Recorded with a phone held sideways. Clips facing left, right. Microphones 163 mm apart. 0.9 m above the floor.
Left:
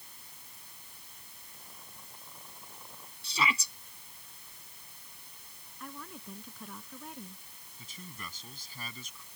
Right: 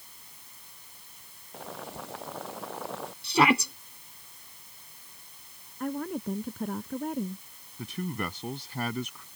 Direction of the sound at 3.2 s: 65° right (ahead or behind).